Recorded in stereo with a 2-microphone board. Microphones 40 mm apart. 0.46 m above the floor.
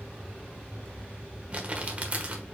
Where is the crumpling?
30° right (ahead or behind), 1.2 m.